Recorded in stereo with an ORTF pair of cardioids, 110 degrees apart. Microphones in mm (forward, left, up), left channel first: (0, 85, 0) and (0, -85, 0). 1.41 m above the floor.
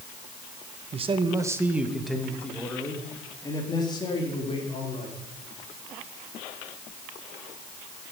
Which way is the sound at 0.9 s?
35° right.